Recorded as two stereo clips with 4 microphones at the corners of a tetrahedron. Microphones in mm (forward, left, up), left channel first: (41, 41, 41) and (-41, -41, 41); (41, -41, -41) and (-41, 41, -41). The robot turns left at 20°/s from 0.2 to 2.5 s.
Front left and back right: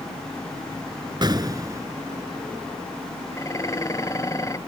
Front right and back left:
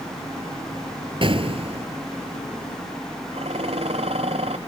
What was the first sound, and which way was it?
An explosion, 175° left.